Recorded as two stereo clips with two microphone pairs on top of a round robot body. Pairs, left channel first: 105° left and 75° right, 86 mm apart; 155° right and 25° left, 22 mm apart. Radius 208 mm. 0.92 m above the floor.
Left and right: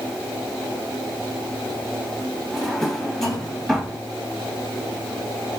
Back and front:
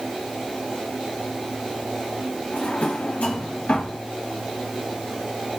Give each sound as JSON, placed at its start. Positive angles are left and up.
{"t": 2.5, "sound": "a drawer", "azimuth_deg": -170, "distance_m": 1.2}